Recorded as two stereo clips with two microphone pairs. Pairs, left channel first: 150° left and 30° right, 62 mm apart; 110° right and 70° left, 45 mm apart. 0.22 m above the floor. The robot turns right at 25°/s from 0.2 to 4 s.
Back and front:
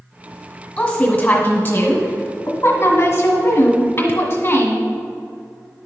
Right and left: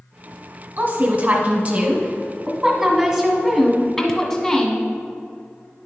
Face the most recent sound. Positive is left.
turn(degrees=160)